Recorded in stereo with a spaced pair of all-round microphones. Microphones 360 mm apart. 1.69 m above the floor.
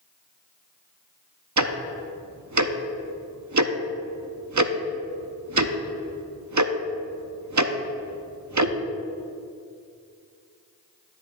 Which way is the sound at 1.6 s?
50° right (ahead or behind).